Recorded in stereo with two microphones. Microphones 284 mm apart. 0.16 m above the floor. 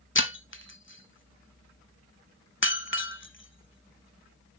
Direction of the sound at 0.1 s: 45° left (ahead or behind).